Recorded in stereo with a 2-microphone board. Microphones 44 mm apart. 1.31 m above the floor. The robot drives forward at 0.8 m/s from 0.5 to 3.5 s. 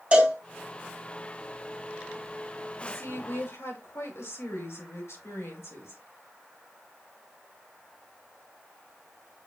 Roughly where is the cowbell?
Right.